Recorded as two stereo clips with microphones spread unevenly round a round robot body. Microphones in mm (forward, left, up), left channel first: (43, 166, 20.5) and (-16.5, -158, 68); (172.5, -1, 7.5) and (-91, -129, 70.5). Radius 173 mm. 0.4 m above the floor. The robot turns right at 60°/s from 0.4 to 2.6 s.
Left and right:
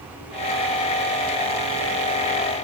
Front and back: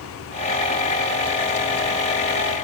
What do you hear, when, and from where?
Only background noise.